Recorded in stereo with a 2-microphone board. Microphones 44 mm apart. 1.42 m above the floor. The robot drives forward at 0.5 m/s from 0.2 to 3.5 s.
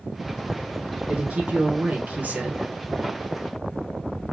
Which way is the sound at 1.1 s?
25° right (ahead or behind).